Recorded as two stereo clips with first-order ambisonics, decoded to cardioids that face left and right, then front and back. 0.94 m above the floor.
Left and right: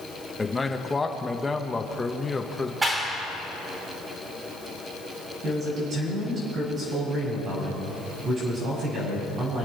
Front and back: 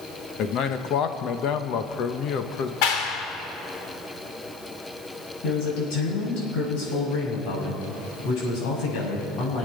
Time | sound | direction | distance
0.4 | a man speaking | 15° left | 1.1 m
2.8 | a clap | 10° right | 2.0 m
5.4 | a man speaking | 30° right | 6.5 m